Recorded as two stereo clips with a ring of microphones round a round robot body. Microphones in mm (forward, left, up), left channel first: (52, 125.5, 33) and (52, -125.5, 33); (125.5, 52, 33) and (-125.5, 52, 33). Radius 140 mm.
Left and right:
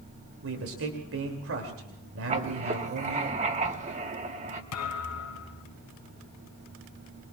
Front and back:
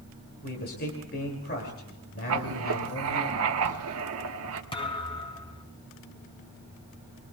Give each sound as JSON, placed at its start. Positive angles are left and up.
{"t": 0.4, "sound": "a man speaking", "azimuth_deg": -55, "distance_m": 2.5}
{"t": 2.3, "sound": "writing", "azimuth_deg": -155, "distance_m": 1.3}
{"t": 4.7, "sound": "a thud", "azimuth_deg": 70, "distance_m": 3.0}